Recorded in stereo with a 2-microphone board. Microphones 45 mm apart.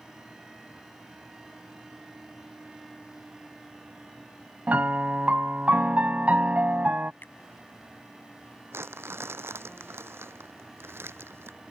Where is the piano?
35° right (ahead or behind).